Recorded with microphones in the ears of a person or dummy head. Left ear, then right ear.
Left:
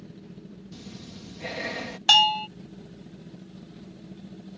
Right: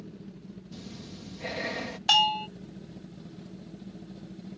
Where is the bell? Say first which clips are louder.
Left 4 dB; 5° left (ahead or behind).